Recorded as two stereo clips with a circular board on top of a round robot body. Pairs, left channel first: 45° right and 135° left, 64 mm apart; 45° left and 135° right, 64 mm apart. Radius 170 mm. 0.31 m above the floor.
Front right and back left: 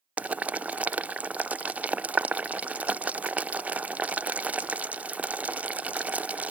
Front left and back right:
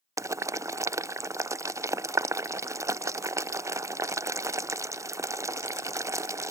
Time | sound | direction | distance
0.2 | boiling | 160° right | ?